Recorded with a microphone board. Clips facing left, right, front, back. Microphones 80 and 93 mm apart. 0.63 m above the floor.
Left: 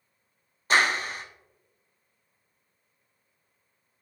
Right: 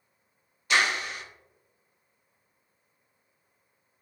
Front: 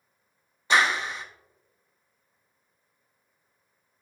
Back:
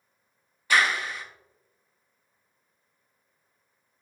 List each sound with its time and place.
0.7 s a clap: 55° left, 0.7 m